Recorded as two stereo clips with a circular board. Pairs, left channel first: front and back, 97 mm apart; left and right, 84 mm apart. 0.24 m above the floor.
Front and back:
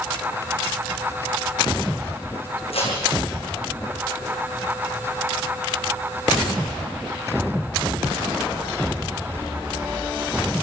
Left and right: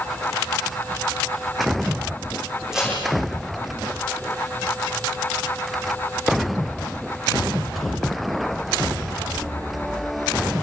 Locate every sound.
2.7 s tape being pulled: 5° right, 8.5 m